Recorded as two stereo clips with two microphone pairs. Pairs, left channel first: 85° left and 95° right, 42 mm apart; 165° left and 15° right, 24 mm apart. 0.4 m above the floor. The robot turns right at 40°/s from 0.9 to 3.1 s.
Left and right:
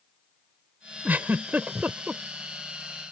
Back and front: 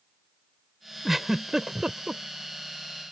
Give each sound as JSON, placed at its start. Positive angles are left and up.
{"t": 1.1, "sound": "a giggle", "azimuth_deg": -95}